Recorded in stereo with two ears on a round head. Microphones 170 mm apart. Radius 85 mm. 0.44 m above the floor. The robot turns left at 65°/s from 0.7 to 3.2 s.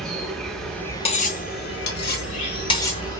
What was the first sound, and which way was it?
An insect, straight behind.